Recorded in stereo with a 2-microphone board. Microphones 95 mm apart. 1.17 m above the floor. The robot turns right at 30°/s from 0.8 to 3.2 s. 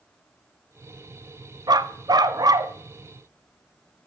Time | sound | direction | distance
1.7 | a dog barking | 95° right | 0.7 m